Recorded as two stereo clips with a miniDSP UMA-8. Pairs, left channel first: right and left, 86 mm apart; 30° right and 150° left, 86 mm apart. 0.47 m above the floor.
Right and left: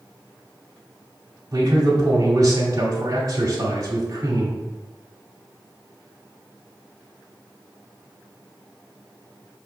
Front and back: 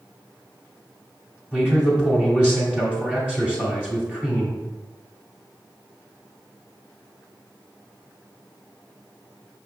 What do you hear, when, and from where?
1.5 s a man speaking: 80° left, 0.9 m